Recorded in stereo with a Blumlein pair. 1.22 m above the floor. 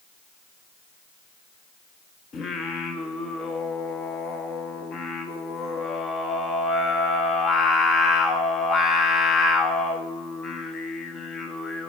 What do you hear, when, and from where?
2.3 s singing: 25° left, 1.3 m